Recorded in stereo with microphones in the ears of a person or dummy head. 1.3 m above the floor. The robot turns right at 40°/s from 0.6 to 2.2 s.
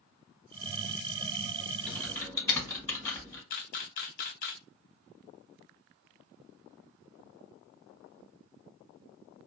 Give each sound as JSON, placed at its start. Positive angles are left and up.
{"t": 1.9, "sound": "typing on a keyboard", "side_deg": 15, "distance_m": 1.5}
{"t": 3.5, "sound": "a camera shutter", "side_deg": 60, "distance_m": 0.7}